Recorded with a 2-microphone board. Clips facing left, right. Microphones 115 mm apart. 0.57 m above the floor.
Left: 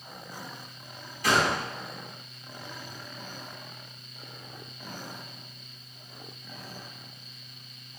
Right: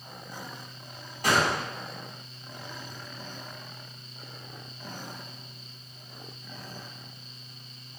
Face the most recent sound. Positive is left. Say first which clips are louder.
# even
turn(degrees=-45)  # may be behind; listen again after turning